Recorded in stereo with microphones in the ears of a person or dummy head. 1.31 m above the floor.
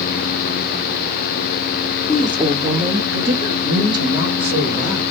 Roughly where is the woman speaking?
Centre.